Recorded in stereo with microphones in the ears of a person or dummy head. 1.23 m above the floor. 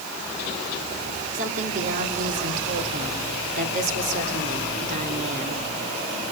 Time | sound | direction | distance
1.3 | a woman speaking | 45° right (ahead or behind) | 3.5 m